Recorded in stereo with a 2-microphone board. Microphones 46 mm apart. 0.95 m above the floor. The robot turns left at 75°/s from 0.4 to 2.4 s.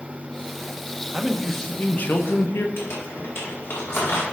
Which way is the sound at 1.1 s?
165° right.